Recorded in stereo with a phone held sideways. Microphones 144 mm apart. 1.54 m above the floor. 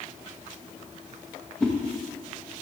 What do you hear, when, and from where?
1.6 s a whoosh: 5° left (ahead or behind), 0.9 m